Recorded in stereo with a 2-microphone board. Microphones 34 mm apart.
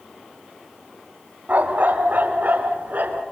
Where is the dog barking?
55° right (ahead or behind), 2 m.